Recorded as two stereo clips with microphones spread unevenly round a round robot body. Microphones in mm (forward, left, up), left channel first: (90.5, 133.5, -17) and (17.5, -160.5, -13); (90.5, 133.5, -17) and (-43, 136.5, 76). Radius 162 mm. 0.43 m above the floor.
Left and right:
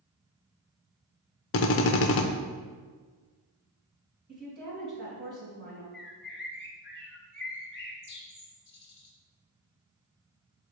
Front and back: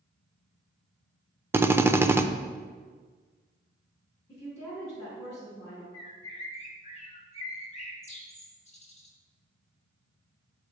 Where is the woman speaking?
50° right, 2.5 m.